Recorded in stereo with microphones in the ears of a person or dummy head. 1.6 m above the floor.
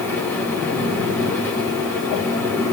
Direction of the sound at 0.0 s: 15° left (ahead or behind).